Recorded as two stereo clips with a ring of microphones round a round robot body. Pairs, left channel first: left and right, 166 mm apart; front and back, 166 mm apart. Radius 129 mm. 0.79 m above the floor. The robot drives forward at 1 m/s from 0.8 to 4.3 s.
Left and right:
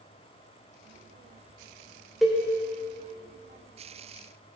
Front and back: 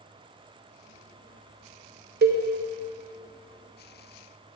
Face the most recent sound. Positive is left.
turn(degrees=180)